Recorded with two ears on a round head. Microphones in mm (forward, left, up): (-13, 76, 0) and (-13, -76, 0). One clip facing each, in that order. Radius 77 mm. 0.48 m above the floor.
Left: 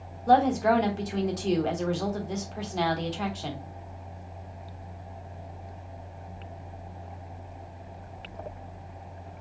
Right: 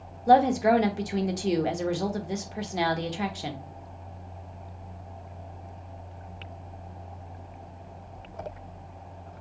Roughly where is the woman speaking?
Centre.